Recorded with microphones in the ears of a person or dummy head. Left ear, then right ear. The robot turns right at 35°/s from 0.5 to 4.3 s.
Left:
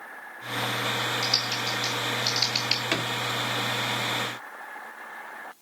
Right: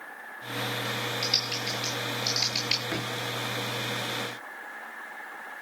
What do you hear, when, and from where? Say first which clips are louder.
1.2 s typing on a keyboard: left 2 dB; 10° left (ahead or behind), 1.2 m; by 2.8 s 10° right (ahead or behind), 1.2 m
2.9 s a drawer: left 5 dB; 45° left (ahead or behind), 1.3 m